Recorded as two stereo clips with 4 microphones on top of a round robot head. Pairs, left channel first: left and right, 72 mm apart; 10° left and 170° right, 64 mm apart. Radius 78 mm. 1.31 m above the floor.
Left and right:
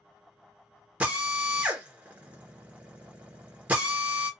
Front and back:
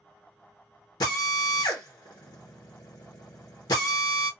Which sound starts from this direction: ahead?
A drill, at 1.0 s.